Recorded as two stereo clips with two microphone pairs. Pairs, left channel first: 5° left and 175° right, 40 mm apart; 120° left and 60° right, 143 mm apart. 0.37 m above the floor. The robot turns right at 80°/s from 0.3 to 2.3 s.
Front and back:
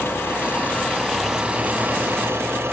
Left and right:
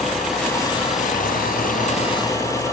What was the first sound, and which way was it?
An engine running, 25° left.